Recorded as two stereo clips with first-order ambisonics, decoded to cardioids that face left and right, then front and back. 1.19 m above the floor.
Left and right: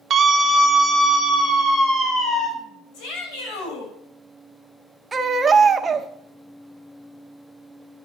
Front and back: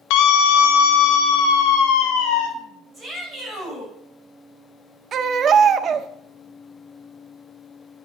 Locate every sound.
0.1 s a scream: 25° right, 1.2 m; by 2.5 s 20° left, 3 m
2.9 s a shout: 90° left, 6 m
5.1 s a baby crying: 155° right, 0.7 m